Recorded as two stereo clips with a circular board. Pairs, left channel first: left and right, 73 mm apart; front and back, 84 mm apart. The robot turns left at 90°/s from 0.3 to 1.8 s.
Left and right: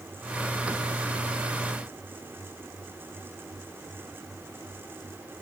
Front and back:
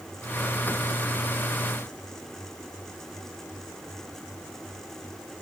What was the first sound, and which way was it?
Only background noise.